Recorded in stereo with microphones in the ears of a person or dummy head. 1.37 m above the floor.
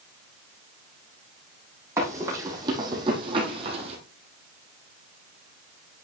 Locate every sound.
2.0 s running footsteps: 15° right (ahead or behind), 4 m; by 4.0 s 35° right (ahead or behind), 3 m